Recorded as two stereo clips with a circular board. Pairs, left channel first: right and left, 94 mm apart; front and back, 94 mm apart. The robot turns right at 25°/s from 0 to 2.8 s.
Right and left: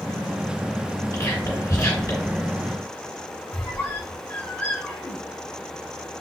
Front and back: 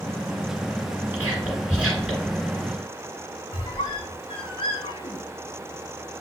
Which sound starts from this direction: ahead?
A squeak, at 3.5 s.